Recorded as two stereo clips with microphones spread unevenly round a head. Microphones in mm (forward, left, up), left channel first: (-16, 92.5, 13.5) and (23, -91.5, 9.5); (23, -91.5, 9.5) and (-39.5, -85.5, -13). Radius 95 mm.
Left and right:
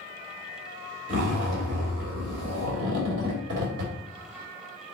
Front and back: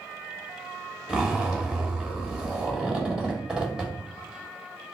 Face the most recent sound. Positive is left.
turn(degrees=-110)